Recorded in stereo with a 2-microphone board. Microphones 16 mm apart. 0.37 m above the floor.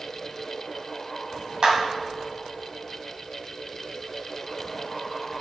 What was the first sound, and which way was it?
A clap, 60° right (ahead or behind).